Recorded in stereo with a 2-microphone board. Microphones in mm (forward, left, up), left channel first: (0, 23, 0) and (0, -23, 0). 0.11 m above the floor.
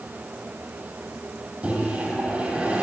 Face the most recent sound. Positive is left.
turn(degrees=-35)  # may be behind; listen again after turning